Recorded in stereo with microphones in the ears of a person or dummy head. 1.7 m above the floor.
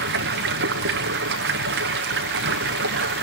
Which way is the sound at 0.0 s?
55° right (ahead or behind).